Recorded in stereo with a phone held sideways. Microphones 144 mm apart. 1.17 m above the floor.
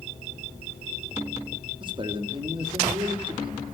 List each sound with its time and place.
1.8 s a man speaking: 35° right (ahead or behind), 3.5 m